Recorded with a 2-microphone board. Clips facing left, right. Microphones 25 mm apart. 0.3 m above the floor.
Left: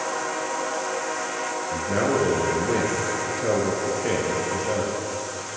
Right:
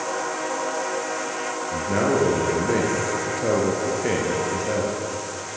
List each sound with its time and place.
1.7 s a man speaking: 10° right (ahead or behind), 6.5 m